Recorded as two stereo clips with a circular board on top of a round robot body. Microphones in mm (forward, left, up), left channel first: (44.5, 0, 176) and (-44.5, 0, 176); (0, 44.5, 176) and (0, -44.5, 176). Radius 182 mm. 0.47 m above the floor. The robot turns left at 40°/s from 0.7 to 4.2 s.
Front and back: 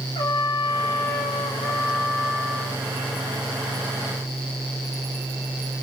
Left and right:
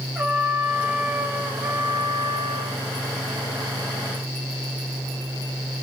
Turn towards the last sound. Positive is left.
turn(degrees=-140)